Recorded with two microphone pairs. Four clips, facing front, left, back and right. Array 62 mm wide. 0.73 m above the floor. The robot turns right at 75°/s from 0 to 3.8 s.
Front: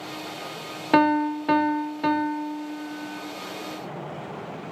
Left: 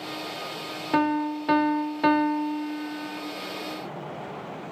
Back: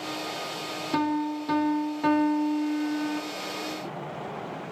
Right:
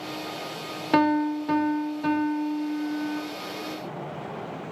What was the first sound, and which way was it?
A piano, 10° right.